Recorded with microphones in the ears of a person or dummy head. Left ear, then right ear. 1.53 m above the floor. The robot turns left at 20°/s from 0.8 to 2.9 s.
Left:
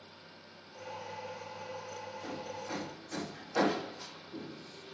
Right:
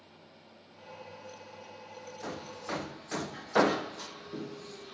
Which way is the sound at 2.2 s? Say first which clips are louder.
Right 4 dB; 65° right (ahead or behind).